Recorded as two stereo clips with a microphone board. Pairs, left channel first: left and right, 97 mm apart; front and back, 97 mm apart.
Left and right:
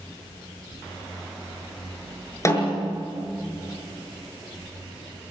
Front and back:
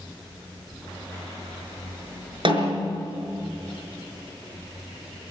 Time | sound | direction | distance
2.5 | a snare drum | 150° left | 5.5 m